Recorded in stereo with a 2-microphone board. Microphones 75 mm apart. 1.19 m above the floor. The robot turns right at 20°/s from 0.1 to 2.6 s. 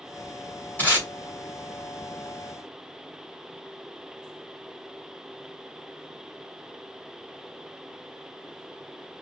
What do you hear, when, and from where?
0.8 s tape being pulled: 25° left (ahead or behind), 2.0 m; by 1.1 s 30° left (ahead or behind), 2.0 m